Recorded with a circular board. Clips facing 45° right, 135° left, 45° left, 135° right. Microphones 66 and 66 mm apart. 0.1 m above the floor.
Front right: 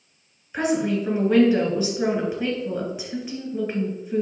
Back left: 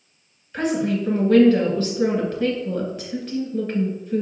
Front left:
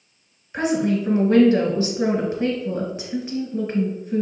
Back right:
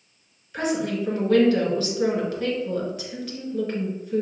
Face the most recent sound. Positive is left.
turn(degrees=15)